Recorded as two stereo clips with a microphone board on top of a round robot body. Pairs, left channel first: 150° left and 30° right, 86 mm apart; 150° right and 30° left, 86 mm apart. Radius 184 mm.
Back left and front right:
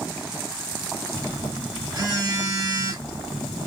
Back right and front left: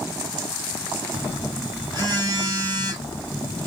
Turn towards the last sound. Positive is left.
turn(degrees=-5)